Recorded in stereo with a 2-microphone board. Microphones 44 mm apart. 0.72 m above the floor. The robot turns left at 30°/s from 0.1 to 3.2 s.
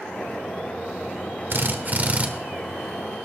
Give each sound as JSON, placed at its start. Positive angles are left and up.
{"t": 1.5, "sound": "a drill", "side_deg": -55, "distance_m": 1.1}